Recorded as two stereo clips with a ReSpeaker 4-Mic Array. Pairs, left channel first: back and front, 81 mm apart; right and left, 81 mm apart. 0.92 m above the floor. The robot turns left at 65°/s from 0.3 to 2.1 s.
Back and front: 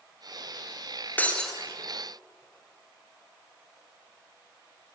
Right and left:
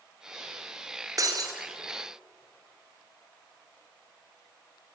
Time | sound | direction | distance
1.2 | breaking glass | 115° left | 1.3 m